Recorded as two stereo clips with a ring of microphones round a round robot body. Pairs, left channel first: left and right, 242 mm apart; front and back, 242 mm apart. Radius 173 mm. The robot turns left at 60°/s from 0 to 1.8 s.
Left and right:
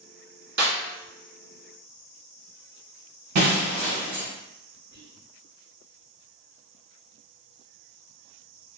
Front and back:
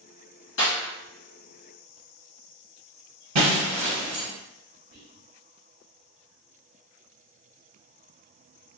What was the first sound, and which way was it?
A snare drum, 50° right.